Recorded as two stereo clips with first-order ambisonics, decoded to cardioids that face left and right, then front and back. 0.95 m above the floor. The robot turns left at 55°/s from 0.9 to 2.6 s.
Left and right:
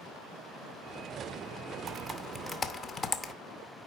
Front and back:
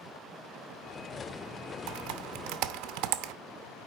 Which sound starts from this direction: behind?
Typing on a keyboard, at 1.9 s.